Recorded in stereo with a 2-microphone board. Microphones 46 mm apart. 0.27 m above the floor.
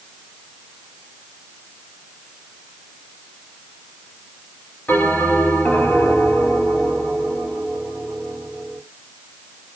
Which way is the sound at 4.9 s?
35° left (ahead or behind).